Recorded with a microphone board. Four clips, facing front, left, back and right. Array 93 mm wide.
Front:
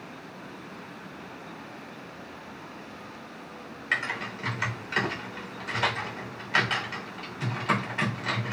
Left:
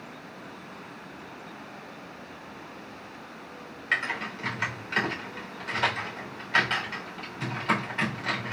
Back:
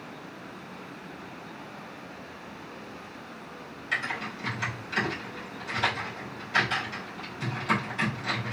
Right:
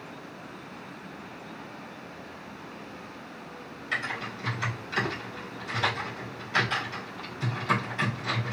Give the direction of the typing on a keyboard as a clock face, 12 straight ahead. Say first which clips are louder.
Left 2 dB, front 1 dB; 10 o'clock.